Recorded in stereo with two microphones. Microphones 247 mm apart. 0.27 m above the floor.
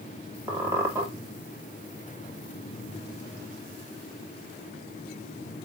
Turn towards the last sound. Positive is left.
turn(degrees=-10)  # may be behind; listen again after turning